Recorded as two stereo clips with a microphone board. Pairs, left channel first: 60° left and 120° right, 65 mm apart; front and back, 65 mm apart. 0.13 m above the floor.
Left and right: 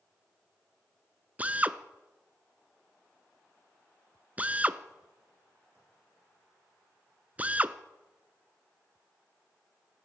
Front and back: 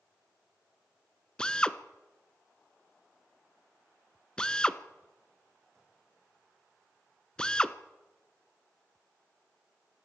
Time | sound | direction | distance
1.4 | a drill | 65° right | 0.8 m